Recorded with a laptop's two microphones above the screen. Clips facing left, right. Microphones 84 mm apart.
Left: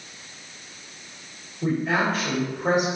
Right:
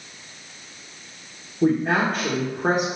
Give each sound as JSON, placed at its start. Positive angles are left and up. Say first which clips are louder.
{"t": 1.6, "sound": "a woman speaking", "louder": "right 3 dB", "side_deg": -65, "distance_m": 2.0}